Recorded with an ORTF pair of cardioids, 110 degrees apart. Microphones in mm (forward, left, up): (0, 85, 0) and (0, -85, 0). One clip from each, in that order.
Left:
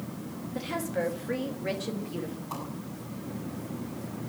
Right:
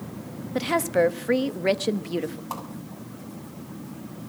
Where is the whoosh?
55° right, 7 m.